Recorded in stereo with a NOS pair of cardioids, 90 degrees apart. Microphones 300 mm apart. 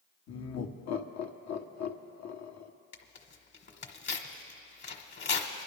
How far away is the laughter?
About 1.3 m.